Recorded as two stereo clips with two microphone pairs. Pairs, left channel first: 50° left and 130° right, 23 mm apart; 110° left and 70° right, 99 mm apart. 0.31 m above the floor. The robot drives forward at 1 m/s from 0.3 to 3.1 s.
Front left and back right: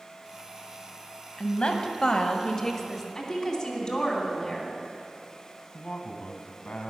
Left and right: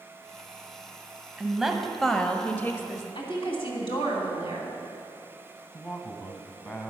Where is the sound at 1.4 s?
15° left, 1.6 m; by 3.0 s 130° left, 1.0 m.